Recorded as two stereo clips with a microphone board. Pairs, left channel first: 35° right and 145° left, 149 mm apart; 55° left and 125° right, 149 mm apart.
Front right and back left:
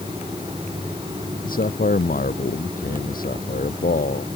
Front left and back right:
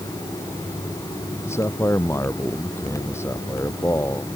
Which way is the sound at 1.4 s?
15° right.